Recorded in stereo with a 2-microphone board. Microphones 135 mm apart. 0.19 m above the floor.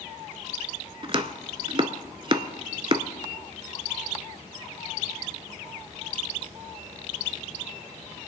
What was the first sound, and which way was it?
Chopping, 40° right (ahead or behind).